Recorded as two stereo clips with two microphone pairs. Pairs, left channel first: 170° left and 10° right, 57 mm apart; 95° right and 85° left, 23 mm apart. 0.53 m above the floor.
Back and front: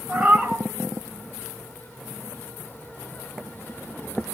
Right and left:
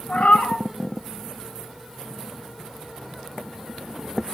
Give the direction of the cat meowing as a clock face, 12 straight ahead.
3 o'clock.